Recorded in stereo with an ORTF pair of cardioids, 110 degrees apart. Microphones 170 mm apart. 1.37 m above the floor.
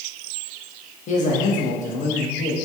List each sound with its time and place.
1.1 s a man speaking: 45° left, 1.4 m